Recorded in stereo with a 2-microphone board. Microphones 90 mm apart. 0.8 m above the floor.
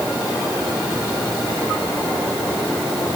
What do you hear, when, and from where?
Only background noise.